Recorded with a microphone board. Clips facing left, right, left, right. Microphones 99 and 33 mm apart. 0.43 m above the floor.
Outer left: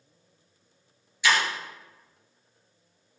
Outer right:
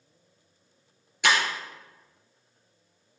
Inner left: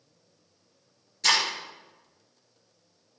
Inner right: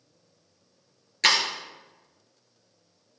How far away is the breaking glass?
About 3 m.